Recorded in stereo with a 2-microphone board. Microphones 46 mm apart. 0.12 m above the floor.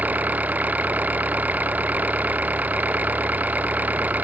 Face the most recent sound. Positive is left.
turn(degrees=-35)  # may be behind; listen again after turning